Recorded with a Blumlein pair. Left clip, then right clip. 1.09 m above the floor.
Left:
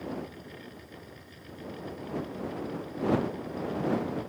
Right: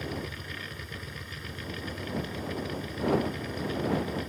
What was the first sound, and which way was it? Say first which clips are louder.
A machine running: right 2 dB; 35° right.